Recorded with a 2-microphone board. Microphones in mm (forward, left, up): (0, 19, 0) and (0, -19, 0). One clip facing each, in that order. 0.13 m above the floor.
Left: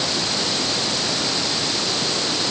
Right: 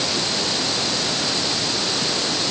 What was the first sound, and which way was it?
Only background noise.